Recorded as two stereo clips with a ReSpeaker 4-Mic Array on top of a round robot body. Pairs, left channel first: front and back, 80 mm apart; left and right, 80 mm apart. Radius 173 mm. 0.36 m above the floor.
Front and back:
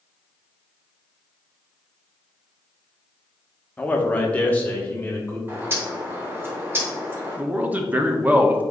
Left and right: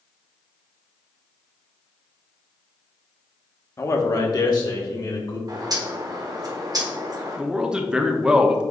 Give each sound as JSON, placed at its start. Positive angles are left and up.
{"t": 3.8, "sound": "a man speaking", "azimuth_deg": 65, "distance_m": 1.2}
{"t": 5.5, "sound": "a bird", "azimuth_deg": -120, "distance_m": 1.8}
{"t": 7.4, "sound": "a man speaking", "azimuth_deg": -155, "distance_m": 1.1}